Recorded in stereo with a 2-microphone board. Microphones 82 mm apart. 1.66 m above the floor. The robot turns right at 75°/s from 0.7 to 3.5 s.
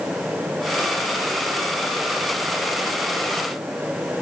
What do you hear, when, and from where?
Only background noise.